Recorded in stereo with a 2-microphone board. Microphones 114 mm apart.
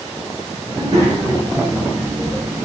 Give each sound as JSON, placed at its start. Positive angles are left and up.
{"t": 0.7, "sound": "a child speaking", "side_deg": -25, "distance_m": 2.0}